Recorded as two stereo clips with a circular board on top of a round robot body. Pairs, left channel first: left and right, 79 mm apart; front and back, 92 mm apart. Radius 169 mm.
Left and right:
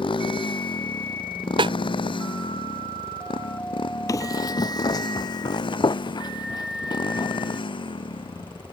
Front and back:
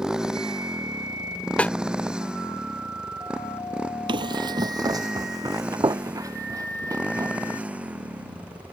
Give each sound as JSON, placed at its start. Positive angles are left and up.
{"t": 0.0, "sound": "a motorcycle", "azimuth_deg": 95}
{"t": 1.6, "sound": "a snare drum", "azimuth_deg": -80}
{"t": 4.1, "sound": "running footsteps", "azimuth_deg": 145}